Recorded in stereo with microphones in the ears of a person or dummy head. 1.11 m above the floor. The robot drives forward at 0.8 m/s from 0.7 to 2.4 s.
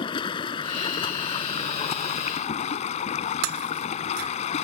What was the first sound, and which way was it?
Running water, 25° left (ahead or behind).